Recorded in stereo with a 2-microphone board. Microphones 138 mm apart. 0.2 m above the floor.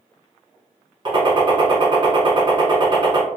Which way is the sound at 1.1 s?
35° right (ahead or behind).